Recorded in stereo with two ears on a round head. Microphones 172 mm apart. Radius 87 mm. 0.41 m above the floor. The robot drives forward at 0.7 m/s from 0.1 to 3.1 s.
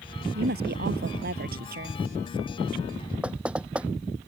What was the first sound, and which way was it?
A woman speaking, 55° right (ahead or behind).